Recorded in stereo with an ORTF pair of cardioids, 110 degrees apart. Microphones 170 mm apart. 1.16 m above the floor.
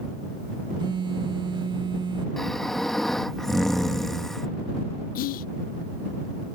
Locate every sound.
0.8 s a phone buzzing: 25° right
2.4 s snoring: straight ahead
5.2 s whispering: 60° left